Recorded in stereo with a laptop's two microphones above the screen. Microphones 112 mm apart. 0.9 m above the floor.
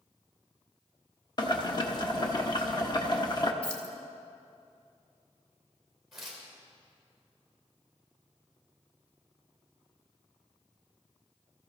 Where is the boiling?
40° left (ahead or behind), 1.2 m.